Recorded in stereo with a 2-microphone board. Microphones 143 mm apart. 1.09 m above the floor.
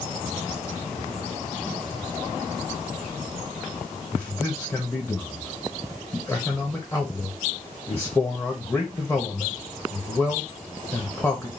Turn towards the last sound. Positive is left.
turn(degrees=15)  # may be behind; listen again after turning